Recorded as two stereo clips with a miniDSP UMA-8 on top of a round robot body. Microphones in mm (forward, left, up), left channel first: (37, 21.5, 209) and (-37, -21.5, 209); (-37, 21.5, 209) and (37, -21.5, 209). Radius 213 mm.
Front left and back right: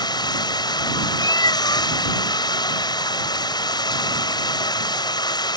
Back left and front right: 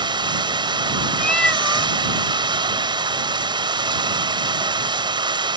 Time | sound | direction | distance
0.0 | running water | 5° right | ?
1.2 | a cat meowing | 70° left | ?